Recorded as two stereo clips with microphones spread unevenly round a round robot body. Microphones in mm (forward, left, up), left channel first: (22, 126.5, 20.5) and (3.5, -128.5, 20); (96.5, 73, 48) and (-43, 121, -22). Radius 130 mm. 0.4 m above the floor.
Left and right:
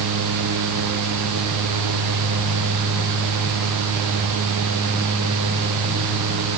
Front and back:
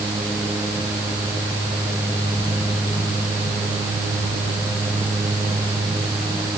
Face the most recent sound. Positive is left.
No sound to turn to.